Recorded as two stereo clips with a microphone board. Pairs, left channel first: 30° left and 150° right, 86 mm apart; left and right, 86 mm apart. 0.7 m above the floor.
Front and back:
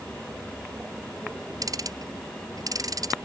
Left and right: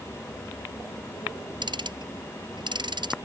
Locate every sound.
1.6 s ticking: 110° right